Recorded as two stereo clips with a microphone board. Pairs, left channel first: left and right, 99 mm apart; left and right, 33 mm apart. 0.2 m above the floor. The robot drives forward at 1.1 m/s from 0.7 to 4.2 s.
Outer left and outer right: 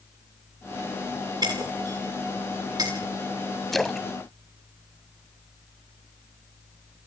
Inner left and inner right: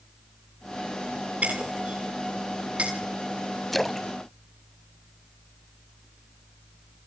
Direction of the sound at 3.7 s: Centre (ahead or behind).